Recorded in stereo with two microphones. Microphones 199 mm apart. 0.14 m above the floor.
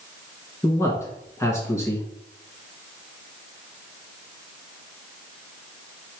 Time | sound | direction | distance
0.6 | a man speaking | 15° left (ahead or behind) | 1.3 m